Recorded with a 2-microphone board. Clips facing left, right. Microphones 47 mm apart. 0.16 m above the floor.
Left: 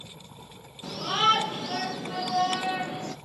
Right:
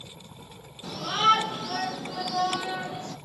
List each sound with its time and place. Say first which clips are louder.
0.8 s a shout: right 1 dB; 25° left (ahead or behind), 4.5 m; by 3.1 s 50° left (ahead or behind), 3 m